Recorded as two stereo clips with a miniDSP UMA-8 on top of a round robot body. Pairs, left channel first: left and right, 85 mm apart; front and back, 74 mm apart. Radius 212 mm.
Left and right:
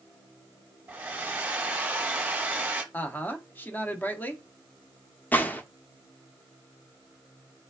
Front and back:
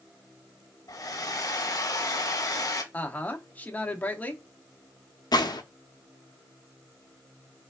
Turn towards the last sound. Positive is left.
turn(degrees=20)